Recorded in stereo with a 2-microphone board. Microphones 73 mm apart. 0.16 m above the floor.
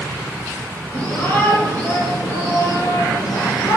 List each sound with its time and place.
0.9 s a shout: 20° left (ahead or behind), 3.5 m; by 3.8 s 60° left (ahead or behind), 3 m